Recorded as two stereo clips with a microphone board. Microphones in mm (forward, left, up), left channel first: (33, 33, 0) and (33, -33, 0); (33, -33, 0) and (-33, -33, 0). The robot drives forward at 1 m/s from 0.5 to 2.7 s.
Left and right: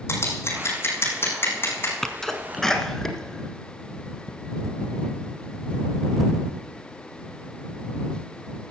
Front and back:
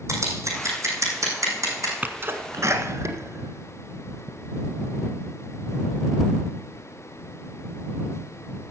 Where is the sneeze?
165° left, 1.1 m; by 4.3 s 175° left, 1.5 m.